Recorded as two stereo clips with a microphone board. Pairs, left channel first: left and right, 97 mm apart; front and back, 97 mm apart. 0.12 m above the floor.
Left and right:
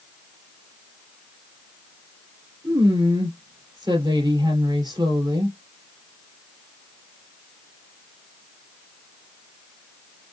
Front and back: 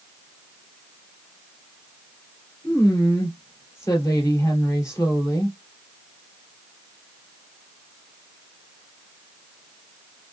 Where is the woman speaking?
50° right, 2.5 m.